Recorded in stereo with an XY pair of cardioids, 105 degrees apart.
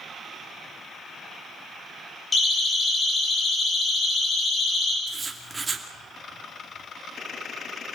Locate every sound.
2.3 s a siren: 30° left, 8 m; by 5.0 s 40° left, 8.5 m
5.1 s writing: 25° right, 2.5 m